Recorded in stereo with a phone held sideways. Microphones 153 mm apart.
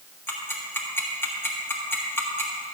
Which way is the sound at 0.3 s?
15° left (ahead or behind).